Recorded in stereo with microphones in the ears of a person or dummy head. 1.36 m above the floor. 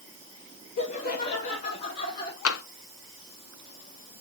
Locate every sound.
0.8 s laughter: 55° left (ahead or behind), 1.9 m; by 2.4 s 30° left (ahead or behind), 1.6 m
2.5 s tapping: 70° left (ahead or behind), 0.7 m